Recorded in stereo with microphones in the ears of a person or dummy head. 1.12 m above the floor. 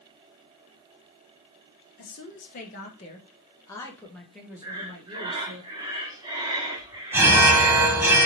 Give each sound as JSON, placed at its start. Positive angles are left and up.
{"t": 2.0, "sound": "a woman speaking", "side_deg": 50, "distance_m": 1.6}
{"t": 4.6, "sound": "breathing", "side_deg": -20, "distance_m": 1.0}
{"t": 7.1, "sound": "an alarm", "side_deg": -5, "distance_m": 0.8}